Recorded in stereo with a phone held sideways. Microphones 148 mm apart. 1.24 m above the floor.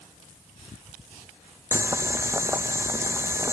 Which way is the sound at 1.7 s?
15° right (ahead or behind).